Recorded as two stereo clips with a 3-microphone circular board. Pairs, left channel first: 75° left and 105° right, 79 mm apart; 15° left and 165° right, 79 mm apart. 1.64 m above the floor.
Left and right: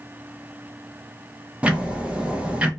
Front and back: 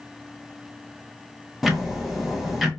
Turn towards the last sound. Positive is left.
turn(degrees=-85)